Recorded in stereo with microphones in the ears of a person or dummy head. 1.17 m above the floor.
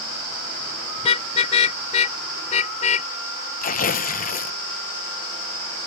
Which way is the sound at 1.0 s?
35° left (ahead or behind).